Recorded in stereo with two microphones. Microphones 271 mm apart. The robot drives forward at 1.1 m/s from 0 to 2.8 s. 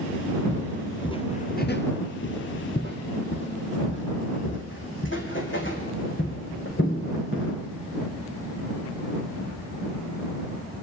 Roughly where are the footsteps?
Centre.